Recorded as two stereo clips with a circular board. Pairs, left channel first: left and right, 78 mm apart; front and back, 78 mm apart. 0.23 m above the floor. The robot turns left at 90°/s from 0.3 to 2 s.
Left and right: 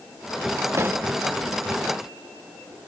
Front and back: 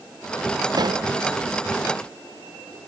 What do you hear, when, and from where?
0.7 s a pop: 145° right; by 1.1 s 175° right